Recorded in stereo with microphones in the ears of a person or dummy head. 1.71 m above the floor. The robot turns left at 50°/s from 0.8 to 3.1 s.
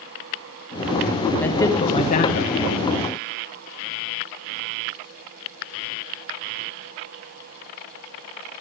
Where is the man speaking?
175° left, 2.0 m; by 2.5 s 115° left, 2.0 m.